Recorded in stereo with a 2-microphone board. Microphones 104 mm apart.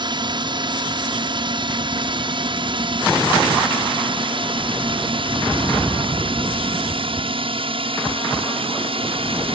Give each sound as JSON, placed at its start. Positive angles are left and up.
{"t": 0.0, "sound": "a drone", "side_deg": -50}